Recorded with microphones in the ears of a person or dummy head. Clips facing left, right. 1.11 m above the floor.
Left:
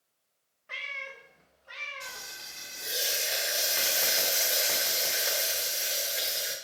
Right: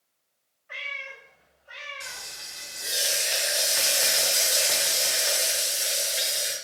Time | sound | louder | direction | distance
0.7 | a cat meowing | right 2 dB | 50° left (ahead or behind) | 0.6 m
2.0 | frying | right 1 dB | centre (ahead or behind) | 0.9 m